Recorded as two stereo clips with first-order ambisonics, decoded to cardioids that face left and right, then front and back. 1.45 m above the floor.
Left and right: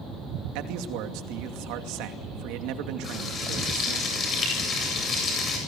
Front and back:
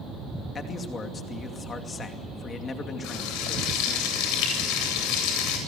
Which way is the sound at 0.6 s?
70° right.